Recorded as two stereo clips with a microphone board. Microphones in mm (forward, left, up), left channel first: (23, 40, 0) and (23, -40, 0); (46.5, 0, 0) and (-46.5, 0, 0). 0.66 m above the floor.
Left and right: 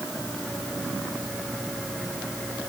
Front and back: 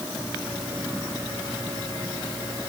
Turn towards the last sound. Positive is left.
No sound to turn to.